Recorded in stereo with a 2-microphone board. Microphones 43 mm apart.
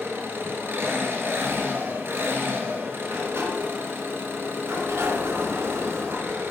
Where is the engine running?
55° right (ahead or behind), 1.5 m.